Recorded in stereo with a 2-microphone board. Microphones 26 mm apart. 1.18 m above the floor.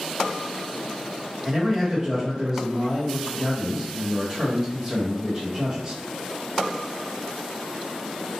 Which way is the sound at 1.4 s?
20° right (ahead or behind).